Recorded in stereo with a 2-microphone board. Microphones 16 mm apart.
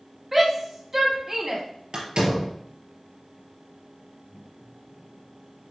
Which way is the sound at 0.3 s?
25° right (ahead or behind).